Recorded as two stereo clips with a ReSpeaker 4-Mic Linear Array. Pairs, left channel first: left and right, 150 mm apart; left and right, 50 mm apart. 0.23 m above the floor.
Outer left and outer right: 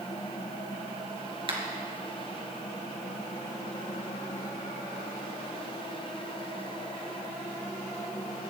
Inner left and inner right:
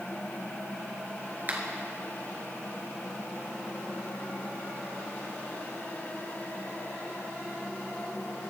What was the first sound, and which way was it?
A finger snap, 35° right (ahead or behind).